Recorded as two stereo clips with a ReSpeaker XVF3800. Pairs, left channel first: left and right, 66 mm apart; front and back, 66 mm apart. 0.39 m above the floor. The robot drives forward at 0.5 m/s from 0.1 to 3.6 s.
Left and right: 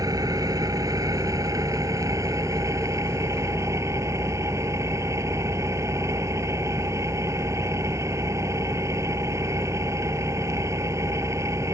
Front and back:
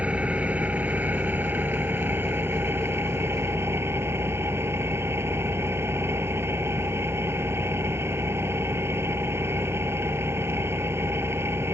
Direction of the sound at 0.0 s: 110° right.